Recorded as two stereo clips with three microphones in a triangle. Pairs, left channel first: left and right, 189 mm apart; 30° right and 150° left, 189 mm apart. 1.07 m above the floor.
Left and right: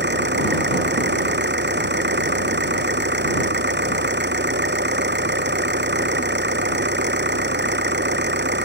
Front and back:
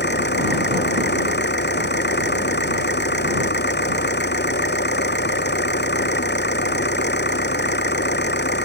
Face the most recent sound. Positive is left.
turn(degrees=-60)